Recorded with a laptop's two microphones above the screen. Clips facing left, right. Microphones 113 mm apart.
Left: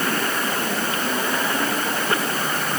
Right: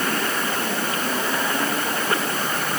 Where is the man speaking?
No man speaking in this recording.